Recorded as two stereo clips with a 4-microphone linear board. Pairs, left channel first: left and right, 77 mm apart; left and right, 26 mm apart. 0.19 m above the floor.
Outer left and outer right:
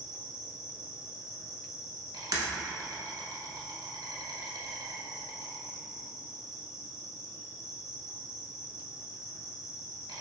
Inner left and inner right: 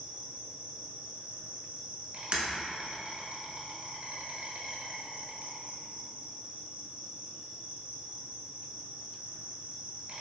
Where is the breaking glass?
60° right (ahead or behind), 0.9 m.